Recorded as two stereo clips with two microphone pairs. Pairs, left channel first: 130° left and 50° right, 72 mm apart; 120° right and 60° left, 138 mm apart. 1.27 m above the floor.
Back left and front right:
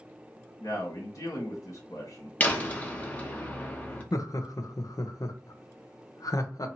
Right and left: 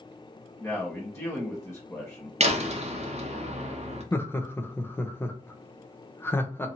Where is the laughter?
165° left, 0.6 m.